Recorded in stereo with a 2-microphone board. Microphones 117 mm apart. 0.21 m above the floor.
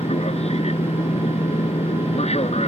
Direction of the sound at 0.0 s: 55° left (ahead or behind).